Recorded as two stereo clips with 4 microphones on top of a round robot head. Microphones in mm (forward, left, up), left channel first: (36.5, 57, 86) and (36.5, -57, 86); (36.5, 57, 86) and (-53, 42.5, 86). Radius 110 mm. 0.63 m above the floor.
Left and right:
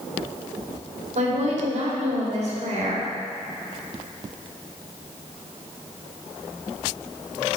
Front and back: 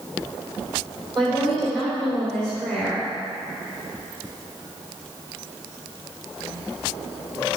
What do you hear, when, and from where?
1.1 s a woman speaking: 75° right, 3 m